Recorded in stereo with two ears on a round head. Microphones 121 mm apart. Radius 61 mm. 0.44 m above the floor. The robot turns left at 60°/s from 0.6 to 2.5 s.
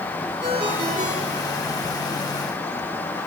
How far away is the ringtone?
About 4 m.